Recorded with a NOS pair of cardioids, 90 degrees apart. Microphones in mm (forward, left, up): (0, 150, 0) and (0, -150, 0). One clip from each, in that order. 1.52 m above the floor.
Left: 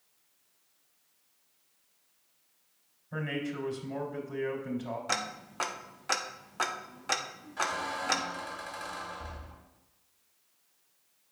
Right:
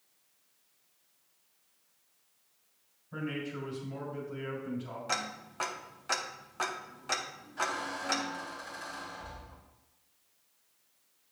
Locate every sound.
3.1 s a man speaking: 45° left, 3.5 m
5.1 s ticking: 15° left, 0.7 m
7.6 s a squeak: 55° left, 3 m